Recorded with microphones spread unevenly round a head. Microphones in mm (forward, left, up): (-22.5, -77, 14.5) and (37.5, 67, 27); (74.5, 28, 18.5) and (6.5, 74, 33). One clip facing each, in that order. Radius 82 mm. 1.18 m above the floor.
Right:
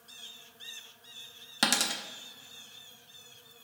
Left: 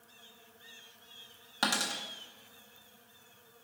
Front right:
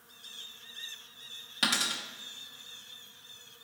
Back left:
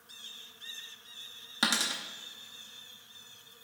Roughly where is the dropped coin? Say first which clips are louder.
Right 2 dB, back left 1 dB; behind.